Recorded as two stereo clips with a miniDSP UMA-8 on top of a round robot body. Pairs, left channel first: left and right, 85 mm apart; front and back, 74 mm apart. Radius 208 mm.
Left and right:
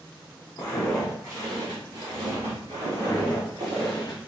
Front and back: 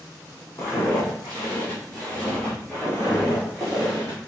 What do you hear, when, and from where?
0.6 s footsteps: 50° left, 0.7 m; by 3.9 s 90° right, 3 m
2.9 s footsteps: 165° left, 1.1 m; by 4.2 s 135° left, 0.5 m